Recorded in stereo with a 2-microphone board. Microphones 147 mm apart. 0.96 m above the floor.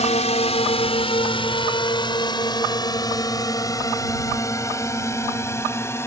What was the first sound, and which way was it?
A drone, 50° left (ahead or behind).